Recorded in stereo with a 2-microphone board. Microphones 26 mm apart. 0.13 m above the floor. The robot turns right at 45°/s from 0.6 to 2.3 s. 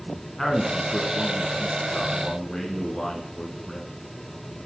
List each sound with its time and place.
0.4 s a man speaking: 15° left (ahead or behind), 1.3 m